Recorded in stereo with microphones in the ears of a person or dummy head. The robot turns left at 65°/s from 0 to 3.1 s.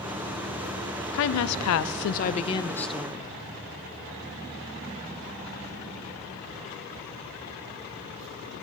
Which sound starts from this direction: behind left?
A woman speaking, at 1.1 s.